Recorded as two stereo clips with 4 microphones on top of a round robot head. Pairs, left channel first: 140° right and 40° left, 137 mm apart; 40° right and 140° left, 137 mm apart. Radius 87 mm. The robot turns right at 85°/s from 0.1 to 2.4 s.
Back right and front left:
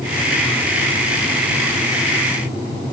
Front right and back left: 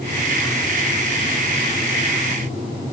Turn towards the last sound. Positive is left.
No sound to turn to.